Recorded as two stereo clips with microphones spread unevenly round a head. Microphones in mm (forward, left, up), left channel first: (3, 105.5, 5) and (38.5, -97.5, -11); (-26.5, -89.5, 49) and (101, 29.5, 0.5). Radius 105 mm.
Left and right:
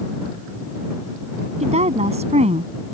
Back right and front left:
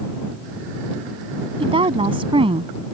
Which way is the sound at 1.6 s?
20° right.